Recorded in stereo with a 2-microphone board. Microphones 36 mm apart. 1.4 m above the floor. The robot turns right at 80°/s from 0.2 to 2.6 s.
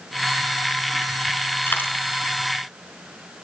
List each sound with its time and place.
1.7 s a dropped coin: 60° left (ahead or behind), 4.5 m; by 1.9 s 75° left (ahead or behind), 4.5 m